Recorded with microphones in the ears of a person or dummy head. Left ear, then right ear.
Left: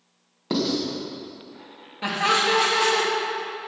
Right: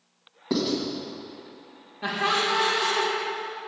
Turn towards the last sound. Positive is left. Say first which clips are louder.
# left 3 dB
turn(degrees=75)  # may be behind; listen again after turning